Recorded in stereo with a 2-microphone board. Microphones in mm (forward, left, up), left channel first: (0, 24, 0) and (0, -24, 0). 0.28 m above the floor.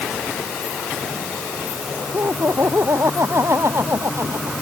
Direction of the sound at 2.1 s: 60° right (ahead or behind).